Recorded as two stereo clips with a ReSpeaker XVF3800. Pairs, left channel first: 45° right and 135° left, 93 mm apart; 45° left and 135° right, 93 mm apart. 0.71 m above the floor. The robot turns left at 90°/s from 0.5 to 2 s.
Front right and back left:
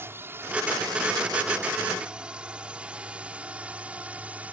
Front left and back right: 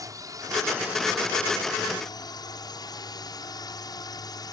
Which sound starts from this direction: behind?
A drone, at 0.0 s.